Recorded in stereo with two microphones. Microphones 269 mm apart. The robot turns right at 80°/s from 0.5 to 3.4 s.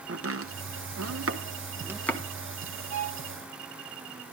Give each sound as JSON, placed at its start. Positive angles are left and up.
{"t": 0.1, "sound": "chopping", "side_deg": -55, "distance_m": 1.0}
{"t": 2.9, "sound": "a violin", "side_deg": 25, "distance_m": 5.5}